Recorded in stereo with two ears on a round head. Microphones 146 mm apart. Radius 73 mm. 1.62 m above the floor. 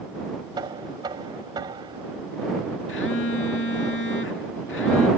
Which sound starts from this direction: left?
A phone buzzing, at 2.9 s.